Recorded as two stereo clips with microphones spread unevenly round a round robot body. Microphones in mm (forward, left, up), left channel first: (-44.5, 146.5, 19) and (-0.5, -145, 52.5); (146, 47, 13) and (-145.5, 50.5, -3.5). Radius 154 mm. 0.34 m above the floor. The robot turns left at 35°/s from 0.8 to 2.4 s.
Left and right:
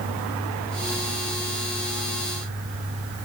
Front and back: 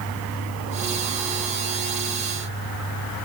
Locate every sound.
Only background noise.